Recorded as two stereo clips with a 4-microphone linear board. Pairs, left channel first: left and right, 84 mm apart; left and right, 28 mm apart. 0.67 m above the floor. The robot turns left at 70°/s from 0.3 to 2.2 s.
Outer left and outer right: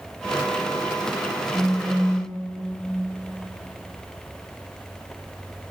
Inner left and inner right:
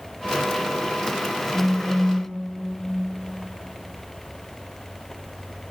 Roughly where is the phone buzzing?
Behind.